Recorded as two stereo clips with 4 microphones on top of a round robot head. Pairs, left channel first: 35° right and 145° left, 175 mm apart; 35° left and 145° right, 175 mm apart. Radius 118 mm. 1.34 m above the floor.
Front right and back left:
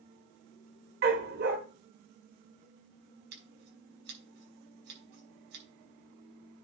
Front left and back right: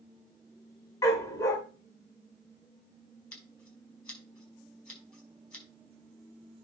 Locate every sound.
1.0 s a dog barking: 110° left, 1.6 m
3.3 s scissors: 120° left, 6 m